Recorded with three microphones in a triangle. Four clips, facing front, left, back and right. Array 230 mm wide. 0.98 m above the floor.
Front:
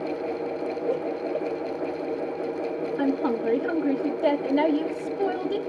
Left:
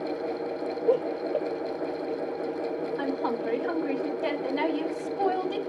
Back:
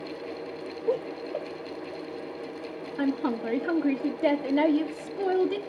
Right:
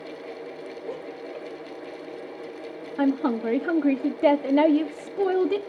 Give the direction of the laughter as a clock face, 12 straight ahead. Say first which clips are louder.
Left 13 dB, back 1 dB; 8 o'clock.